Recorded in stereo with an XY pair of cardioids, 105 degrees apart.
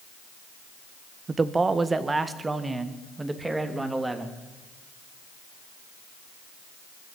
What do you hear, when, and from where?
1.3 s a man speaking: 30° right, 1.3 m; by 4.4 s 15° right, 3.5 m